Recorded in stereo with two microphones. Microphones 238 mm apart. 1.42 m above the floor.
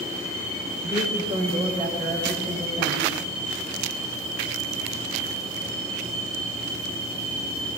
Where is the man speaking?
15° right (ahead or behind), 5 m; by 3.1 s 25° right (ahead or behind), 7.5 m.